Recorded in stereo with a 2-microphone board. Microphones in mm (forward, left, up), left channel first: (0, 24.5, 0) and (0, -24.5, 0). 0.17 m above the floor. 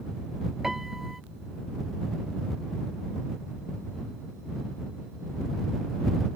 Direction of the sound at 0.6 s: 10° right (ahead or behind).